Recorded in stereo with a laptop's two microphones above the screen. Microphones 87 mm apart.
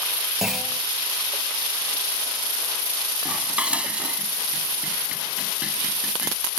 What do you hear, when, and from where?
0.4 s a clunk: 5° right (ahead or behind)
3.2 s dishes clattering: 15° right (ahead or behind)